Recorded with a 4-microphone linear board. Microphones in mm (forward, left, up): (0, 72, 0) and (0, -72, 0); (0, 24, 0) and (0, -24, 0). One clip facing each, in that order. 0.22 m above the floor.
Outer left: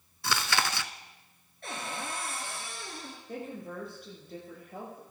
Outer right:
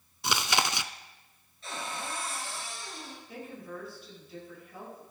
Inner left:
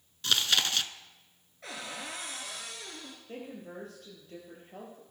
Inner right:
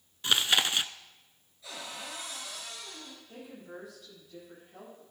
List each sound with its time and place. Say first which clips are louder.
0.2 s chewing: outer right 1 dB, inner right 2 dB; 20° right (ahead or behind), 0.6 m
1.6 s a cupboard door: even, inner left 2 dB; 60° left (ahead or behind), 3.5 m
3.3 s a woman speaking: outer left 4 dB, inner left 5 dB; 50° left (ahead or behind), 6 m